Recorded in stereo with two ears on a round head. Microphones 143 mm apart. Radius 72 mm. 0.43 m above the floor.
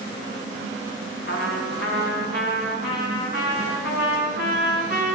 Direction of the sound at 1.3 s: 70° left (ahead or behind).